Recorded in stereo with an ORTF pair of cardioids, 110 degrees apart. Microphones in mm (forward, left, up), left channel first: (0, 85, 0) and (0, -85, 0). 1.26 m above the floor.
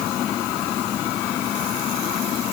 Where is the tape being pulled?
No tape being pulled in this recording.